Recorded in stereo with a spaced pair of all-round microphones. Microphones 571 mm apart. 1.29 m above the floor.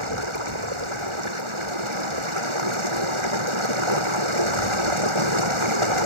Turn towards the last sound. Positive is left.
turn(degrees=-55)  # may be behind; listen again after turning